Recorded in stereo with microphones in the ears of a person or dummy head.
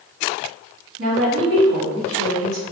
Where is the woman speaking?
75° right (ahead or behind), 1.3 m.